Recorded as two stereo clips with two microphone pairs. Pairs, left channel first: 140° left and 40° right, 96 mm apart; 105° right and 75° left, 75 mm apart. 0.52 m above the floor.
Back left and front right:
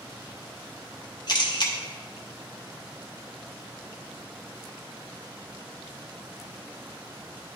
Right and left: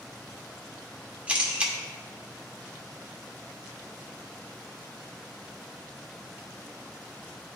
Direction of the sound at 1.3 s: 140° left.